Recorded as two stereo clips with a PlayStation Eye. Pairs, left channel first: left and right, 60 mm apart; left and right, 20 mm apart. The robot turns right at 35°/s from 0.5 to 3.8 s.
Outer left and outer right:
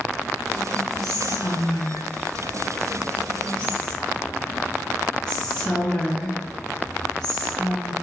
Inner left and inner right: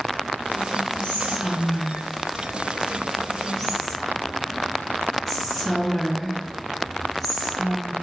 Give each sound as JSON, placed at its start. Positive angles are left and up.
{"t": 1.0, "sound": "whispering", "side_deg": 65, "distance_m": 1.3}